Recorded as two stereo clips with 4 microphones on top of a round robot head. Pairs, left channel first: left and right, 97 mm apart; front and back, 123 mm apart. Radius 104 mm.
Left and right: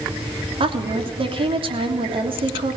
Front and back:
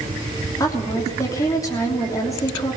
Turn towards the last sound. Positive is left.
turn(degrees=-65)